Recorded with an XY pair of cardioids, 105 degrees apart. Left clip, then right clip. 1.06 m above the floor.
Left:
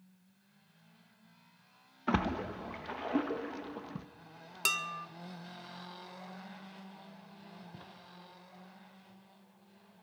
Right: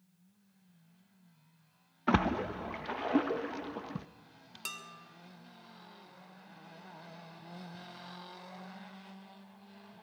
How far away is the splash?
About 0.8 m.